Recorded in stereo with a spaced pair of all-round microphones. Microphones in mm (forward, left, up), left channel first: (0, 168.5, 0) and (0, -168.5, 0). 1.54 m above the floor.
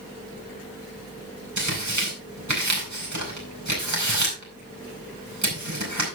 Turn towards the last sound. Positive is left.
turn(degrees=-55)  # may be behind; listen again after turning